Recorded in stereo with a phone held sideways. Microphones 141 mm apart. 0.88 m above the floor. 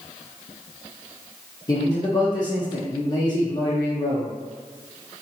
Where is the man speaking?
30° left (ahead or behind), 0.6 m.